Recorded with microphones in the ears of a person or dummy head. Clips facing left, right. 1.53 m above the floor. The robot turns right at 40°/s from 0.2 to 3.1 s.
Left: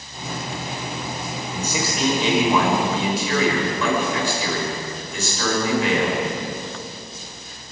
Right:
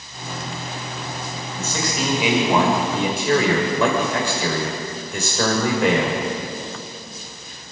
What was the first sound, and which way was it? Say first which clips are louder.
A man speaking: even; 160° left.